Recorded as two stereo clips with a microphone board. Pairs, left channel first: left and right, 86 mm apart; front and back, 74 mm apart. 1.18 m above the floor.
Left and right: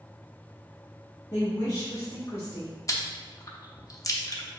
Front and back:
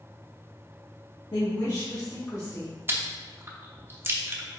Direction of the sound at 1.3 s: 35° left.